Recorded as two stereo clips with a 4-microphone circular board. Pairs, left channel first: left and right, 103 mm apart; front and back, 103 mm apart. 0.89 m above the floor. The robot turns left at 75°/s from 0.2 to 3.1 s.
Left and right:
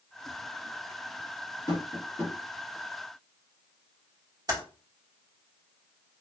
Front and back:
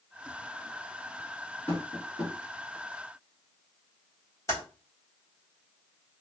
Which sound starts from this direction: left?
Tapping, at 1.7 s.